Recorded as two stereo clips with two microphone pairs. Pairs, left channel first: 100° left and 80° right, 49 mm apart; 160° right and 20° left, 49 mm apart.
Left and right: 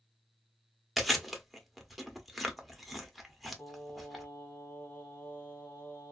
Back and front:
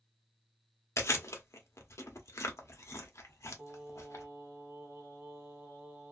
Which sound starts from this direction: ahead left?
Singing, at 3.6 s.